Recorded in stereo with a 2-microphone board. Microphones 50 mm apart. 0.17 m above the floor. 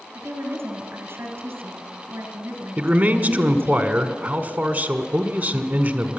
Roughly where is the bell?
I don't hear a bell.